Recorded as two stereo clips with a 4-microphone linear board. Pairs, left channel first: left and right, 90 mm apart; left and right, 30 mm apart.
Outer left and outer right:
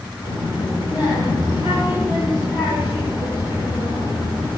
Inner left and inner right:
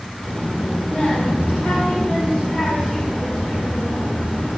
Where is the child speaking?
65° left (ahead or behind), 2.5 m.